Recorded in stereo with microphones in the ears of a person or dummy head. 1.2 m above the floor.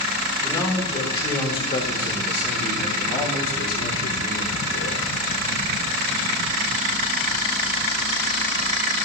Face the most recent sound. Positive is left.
turn(degrees=65)  # may be behind; listen again after turning